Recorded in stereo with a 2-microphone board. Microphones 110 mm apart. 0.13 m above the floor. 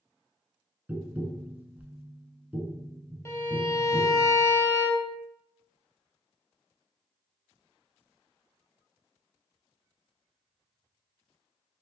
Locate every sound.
0.9 s tapping: 15° right (ahead or behind), 0.6 m
3.2 s a violin: 25° left (ahead or behind), 0.7 m